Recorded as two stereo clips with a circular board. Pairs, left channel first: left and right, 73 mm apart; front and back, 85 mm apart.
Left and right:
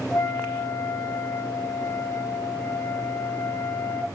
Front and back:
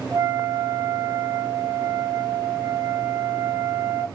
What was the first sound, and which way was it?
A flute, 130° left.